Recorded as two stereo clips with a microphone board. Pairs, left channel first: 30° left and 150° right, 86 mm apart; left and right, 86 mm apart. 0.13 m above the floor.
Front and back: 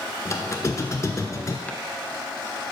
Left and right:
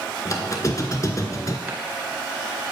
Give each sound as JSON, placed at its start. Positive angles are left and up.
{"t": 0.2, "sound": "a squeak", "azimuth_deg": 65, "distance_m": 0.7}
{"t": 1.7, "sound": "chopping", "azimuth_deg": -30, "distance_m": 0.9}